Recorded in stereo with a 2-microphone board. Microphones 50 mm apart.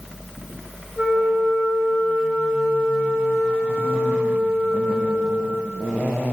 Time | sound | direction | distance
1.0 | a flute | 15° right (ahead or behind) | 4 m